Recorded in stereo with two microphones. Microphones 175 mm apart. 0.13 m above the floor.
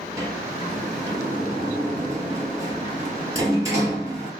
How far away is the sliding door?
About 0.8 m.